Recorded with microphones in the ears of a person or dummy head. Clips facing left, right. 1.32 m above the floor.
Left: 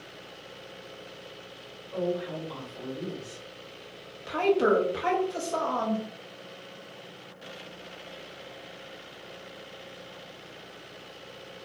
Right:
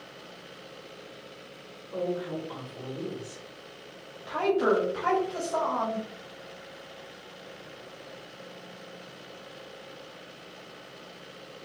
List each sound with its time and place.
1.9 s a woman speaking: 30° right (ahead or behind), 1.3 m
4.3 s a woman speaking: 35° left (ahead or behind), 0.7 m